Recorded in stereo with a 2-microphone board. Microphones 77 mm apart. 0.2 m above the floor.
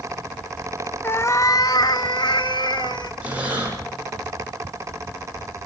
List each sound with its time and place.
1.0 s a cat meowing: 30° left (ahead or behind), 0.7 m; by 3.1 s 75° left (ahead or behind), 1.7 m
3.2 s breathing: 20° right (ahead or behind), 8 m